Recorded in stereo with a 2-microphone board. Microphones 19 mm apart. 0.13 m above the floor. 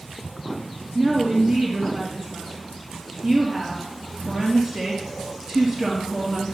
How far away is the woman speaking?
About 2.5 m.